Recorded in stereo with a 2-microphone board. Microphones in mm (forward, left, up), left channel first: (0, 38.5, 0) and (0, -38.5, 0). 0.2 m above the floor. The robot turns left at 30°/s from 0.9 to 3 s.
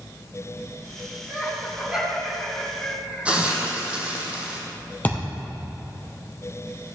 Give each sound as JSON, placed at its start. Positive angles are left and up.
{"t": 1.3, "sound": "laughter", "side_deg": -30, "distance_m": 3.5}
{"t": 3.2, "sound": "a hiss", "side_deg": -15, "distance_m": 2.0}
{"t": 5.0, "sound": "a thud", "side_deg": 20, "distance_m": 3.0}